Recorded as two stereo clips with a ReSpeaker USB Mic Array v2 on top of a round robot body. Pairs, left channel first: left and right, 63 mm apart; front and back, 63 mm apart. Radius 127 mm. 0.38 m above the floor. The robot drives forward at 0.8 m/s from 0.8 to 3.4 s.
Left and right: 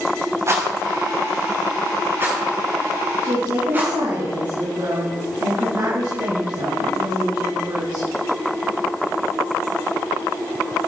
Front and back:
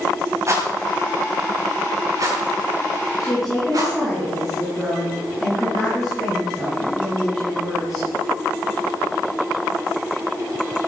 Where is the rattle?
135° right, 4.5 m; by 3.9 s 150° right, 6 m.